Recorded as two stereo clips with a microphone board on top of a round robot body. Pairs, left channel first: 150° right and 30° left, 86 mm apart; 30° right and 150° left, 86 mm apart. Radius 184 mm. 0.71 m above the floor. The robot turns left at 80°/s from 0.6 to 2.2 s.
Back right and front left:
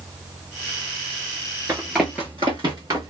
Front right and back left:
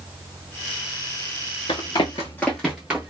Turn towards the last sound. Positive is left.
turn(degrees=80)